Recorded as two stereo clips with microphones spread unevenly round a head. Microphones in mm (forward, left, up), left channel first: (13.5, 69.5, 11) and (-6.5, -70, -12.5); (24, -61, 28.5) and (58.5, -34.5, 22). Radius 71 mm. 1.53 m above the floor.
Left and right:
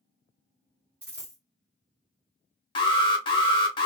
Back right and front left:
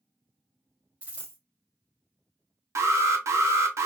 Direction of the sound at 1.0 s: 15° right.